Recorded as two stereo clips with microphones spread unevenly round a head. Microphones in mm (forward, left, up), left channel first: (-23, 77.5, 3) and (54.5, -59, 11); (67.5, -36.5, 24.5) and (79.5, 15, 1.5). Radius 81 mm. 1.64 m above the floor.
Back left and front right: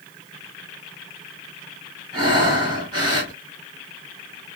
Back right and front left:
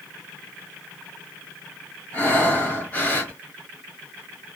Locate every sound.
2.1 s breathing: 105° right, 2 m